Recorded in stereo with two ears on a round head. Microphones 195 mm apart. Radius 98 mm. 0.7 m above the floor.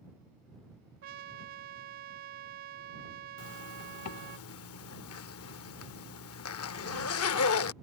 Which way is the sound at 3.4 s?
75° left (ahead or behind).